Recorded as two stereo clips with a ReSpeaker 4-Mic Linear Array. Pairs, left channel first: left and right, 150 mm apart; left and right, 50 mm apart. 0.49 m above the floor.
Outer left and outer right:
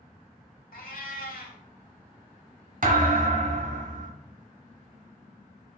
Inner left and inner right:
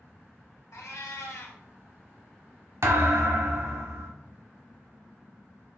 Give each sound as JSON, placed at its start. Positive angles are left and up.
{"t": 0.7, "sound": "a cat meowing", "side_deg": 75, "distance_m": 0.9}
{"t": 2.8, "sound": "a thud", "side_deg": -65, "distance_m": 0.8}